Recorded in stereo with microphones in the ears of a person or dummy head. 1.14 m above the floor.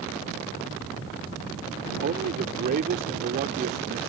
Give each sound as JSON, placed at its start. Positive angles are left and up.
{"t": 2.0, "sound": "a man speaking", "side_deg": -45}